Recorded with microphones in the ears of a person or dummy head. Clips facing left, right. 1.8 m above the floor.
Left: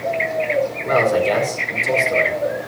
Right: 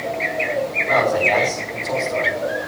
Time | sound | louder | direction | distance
0.8 | a man speaking | left 1 dB | 45° left (ahead or behind) | 4.5 m